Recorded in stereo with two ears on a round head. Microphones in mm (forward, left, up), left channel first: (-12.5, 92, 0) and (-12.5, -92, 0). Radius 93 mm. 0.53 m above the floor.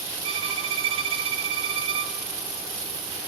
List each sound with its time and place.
0.2 s a violin: 25° right (ahead or behind), 1.1 m